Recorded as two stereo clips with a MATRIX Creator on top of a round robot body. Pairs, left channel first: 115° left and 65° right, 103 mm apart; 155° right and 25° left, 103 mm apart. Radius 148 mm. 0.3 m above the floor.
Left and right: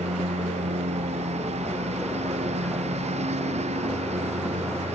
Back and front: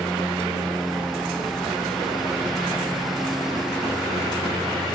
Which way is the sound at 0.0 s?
65° right.